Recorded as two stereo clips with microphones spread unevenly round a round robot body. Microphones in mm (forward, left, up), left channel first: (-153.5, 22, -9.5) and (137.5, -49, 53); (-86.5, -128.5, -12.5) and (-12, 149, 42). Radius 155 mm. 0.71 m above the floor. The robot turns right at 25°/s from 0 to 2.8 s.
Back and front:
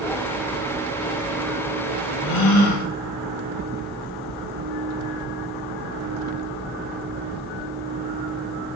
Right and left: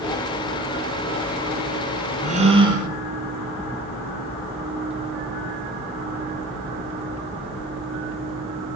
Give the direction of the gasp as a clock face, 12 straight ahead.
7 o'clock.